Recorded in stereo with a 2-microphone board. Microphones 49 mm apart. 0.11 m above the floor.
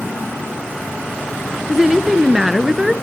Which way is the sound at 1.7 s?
5° right (ahead or behind).